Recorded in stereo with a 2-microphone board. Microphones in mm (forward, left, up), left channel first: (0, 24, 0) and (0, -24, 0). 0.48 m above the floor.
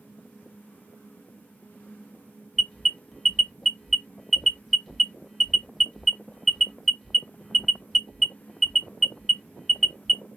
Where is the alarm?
5° left (ahead or behind), 1.1 m.